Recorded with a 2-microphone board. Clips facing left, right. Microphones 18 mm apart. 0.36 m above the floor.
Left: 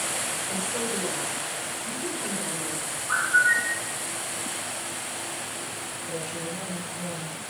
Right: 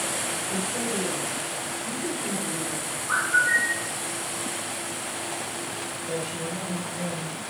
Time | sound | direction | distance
0.5 | a woman speaking | 35° left (ahead or behind) | 1.4 m
3.1 | a bird | 10° right (ahead or behind) | 1.5 m
6.1 | a woman speaking | 55° right (ahead or behind) | 2.5 m